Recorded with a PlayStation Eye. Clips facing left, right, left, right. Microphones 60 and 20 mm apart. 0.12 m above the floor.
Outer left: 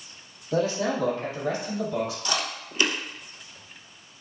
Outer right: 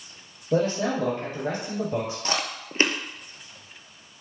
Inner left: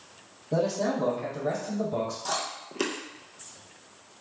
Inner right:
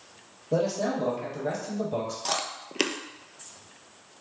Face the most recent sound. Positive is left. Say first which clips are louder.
# outer right 1 dB, inner right 1 dB
turn(degrees=-40)  # may be behind; listen again after turning